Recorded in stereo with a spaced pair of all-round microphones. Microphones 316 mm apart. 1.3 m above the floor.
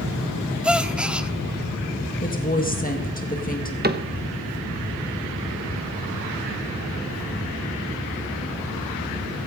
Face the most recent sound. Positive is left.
turn(degrees=-30)  # may be behind; listen again after turning